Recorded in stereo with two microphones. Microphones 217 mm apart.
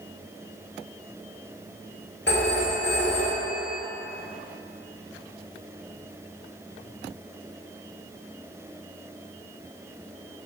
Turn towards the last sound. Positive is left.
turn(degrees=55)  # may be behind; listen again after turning